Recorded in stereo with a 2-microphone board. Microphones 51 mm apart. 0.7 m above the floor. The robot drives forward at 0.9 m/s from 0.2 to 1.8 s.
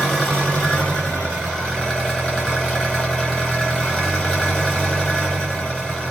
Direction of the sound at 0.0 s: 5° left (ahead or behind).